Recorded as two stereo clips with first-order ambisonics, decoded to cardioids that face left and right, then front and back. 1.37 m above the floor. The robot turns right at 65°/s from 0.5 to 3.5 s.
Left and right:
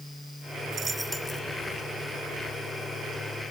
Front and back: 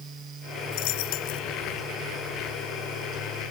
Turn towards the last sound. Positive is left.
turn(degrees=155)